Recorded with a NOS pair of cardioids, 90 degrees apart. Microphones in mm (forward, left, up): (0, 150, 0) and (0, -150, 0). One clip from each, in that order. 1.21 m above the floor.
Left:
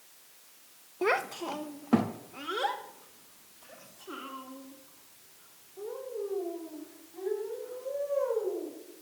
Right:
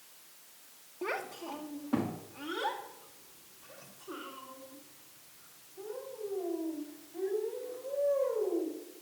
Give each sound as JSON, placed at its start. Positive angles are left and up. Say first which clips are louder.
{"t": 1.0, "sound": "a child speaking", "louder": "left 8 dB", "azimuth_deg": 35, "distance_m": 0.5}